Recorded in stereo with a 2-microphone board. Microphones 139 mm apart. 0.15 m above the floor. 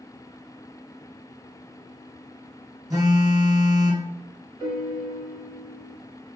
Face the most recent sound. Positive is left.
turn(degrees=-35)  # may be behind; listen again after turning